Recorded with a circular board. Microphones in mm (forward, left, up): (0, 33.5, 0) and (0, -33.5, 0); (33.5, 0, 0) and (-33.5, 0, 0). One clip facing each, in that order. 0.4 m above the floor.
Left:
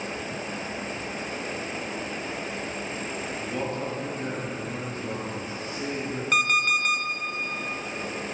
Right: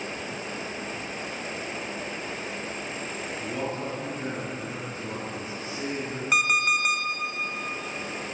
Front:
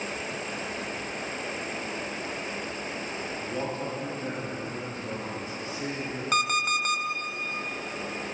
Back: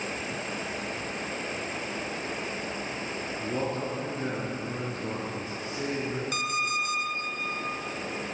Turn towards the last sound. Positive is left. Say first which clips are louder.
# even, front 7 dB
turn(degrees=-10)